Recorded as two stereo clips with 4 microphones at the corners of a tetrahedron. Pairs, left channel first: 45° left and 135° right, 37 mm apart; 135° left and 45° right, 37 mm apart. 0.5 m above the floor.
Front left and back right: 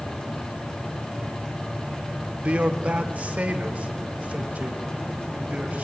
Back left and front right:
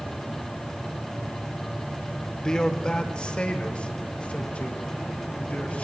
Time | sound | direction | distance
2.4 | a man speaking | 160° right | 1.1 m